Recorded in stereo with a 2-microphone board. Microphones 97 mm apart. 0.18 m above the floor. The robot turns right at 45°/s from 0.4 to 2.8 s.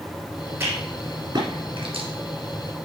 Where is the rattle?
25° right (ahead or behind), 3.5 m; by 2.1 s 65° right (ahead or behind), 3.5 m.